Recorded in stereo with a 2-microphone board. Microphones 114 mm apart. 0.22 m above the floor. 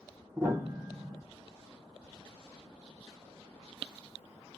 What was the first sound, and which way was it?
A piano, 25° right (ahead or behind).